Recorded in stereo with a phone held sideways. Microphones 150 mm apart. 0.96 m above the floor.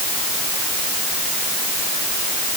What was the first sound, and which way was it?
Only background noise.